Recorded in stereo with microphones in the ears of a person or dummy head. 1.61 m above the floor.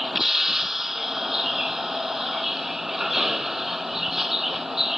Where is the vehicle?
5° left (ahead or behind).